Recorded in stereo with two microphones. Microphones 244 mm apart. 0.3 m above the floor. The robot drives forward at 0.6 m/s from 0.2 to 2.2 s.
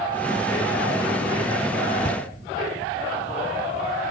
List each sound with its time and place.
2.0 s a thud: 10° left (ahead or behind), 1.2 m